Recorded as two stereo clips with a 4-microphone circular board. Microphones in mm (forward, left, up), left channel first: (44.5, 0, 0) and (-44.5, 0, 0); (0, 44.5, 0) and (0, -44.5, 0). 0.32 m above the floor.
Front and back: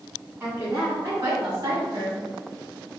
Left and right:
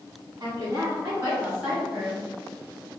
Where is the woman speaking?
125° right, 2.0 m; by 2.2 s 175° left, 1.6 m.